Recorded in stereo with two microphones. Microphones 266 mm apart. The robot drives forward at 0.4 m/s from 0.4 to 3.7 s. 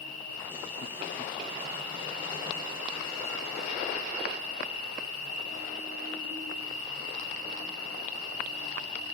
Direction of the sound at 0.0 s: 55° left (ahead or behind).